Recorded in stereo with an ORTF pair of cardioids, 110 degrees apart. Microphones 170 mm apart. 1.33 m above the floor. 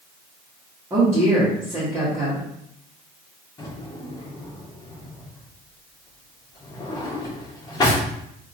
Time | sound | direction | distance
0.9 | a woman speaking | 15° right | 1.9 m
3.6 | a drawer | 25° left | 1.8 m